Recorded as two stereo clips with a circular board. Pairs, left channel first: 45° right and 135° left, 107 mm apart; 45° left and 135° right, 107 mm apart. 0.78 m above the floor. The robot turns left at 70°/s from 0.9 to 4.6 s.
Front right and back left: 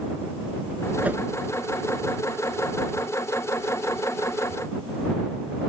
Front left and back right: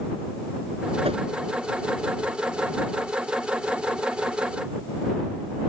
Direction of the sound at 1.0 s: 150° right.